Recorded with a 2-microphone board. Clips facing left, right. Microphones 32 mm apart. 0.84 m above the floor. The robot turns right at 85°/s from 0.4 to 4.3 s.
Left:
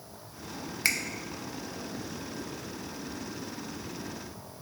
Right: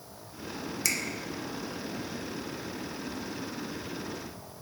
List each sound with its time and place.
0.8 s a finger snap: 30° left (ahead or behind), 0.7 m; by 1.0 s 25° left (ahead or behind), 0.7 m